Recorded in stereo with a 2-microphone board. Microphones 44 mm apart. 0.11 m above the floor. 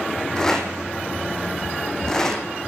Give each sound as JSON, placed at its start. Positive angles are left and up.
{"t": 0.4, "sound": "a rattle", "side_deg": 15, "distance_m": 4.0}